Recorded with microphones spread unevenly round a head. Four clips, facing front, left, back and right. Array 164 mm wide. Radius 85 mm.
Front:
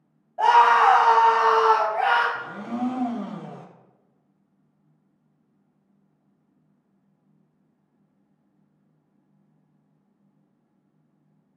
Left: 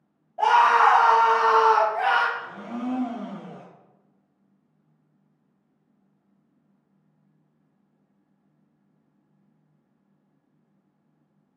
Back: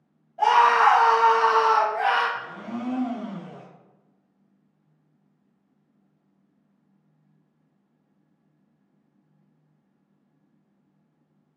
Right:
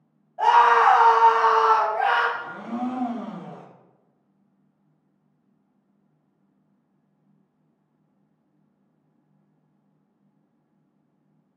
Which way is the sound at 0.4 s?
50° left.